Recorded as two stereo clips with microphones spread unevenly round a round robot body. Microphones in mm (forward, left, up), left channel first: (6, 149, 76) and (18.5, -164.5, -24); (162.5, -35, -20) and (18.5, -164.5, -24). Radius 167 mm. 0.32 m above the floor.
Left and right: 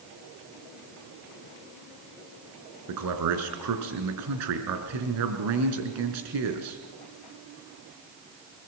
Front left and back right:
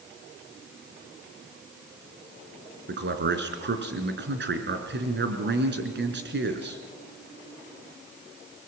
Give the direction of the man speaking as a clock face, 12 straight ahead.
4 o'clock.